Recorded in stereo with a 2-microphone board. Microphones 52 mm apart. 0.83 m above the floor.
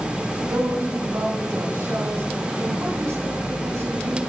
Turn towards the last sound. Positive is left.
turn(degrees=-85)